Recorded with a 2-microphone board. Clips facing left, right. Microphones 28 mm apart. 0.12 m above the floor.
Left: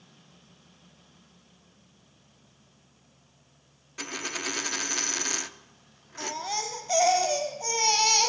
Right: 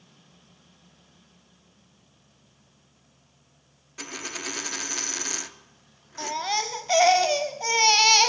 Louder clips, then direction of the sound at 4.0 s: Left 1 dB; 5° left (ahead or behind).